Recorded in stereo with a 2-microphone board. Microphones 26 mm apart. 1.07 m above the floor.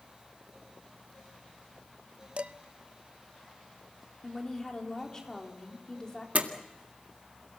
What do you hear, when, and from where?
2.4 s dishes clattering: 50° right (ahead or behind), 0.8 m
4.2 s a woman speaking: 20° left (ahead or behind), 3.5 m
6.3 s a door slam: 70° right (ahead or behind), 1.9 m